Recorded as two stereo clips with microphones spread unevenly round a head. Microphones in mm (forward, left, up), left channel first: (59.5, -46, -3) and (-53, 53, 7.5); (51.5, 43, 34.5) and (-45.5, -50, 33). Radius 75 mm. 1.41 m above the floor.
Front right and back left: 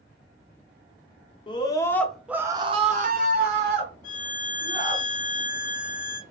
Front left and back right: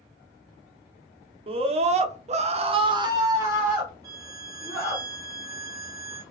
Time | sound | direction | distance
1.5 | a scream | 95° right | 0.7 m
4.0 | a violin | 75° right | 0.8 m